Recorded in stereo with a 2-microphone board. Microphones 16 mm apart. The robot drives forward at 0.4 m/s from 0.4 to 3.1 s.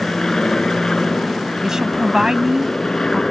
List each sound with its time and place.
0.0 s an aircraft: 40° left (ahead or behind)
1.6 s a woman speaking: 40° right (ahead or behind); by 3.2 s 35° right (ahead or behind)